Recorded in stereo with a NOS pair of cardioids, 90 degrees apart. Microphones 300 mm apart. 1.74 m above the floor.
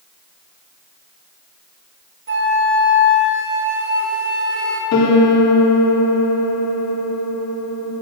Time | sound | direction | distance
2.3 | a flute | 40° right | 4 m
4.9 | a piano | 55° left | 4 m